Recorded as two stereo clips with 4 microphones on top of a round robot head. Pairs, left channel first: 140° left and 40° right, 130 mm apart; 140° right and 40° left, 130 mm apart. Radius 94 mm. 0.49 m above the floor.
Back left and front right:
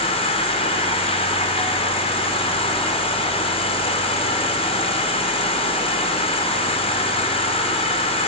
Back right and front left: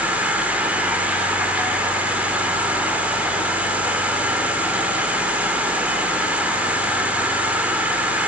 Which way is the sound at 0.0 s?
115° left.